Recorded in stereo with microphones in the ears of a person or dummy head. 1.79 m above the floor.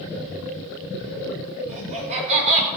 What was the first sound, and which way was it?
Laughter, 35° right (ahead or behind).